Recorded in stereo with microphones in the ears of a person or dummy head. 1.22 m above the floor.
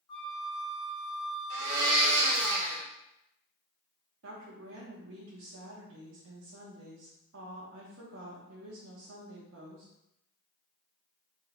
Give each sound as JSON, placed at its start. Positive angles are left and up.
{"t": 0.1, "sound": "a flute", "side_deg": 25, "distance_m": 1.0}
{"t": 1.5, "sound": "a blender", "side_deg": -60, "distance_m": 0.9}
{"t": 4.2, "sound": "a woman speaking", "side_deg": -75, "distance_m": 1.3}